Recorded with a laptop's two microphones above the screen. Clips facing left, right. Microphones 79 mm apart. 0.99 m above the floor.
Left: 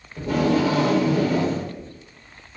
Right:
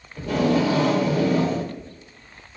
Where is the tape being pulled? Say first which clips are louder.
Even; 35° left (ahead or behind), 1.4 m.